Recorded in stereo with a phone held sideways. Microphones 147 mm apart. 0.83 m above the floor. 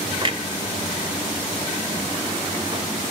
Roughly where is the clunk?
Right.